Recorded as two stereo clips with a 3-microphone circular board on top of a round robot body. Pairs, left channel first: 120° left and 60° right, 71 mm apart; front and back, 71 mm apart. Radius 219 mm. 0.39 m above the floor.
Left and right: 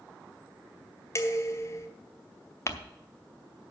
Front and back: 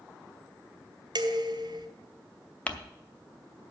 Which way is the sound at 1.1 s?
170° left.